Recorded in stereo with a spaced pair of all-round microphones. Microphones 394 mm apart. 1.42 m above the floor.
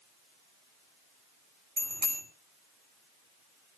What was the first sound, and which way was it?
A bicycle bell, 45° right (ahead or behind).